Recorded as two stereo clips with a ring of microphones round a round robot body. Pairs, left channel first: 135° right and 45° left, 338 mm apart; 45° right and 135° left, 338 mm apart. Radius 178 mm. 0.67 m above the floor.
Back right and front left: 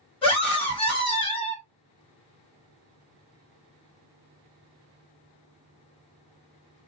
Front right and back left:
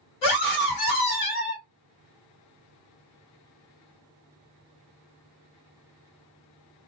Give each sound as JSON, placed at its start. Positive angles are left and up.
{"t": 0.2, "sound": "a scream", "azimuth_deg": -55, "distance_m": 1.8}